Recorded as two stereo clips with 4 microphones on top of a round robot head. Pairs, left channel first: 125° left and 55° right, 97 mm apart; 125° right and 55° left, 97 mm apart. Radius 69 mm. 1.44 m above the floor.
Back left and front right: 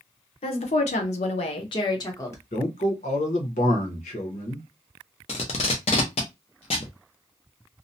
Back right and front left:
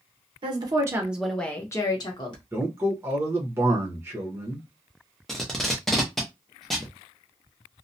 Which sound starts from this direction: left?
A woman speaking, at 0.4 s.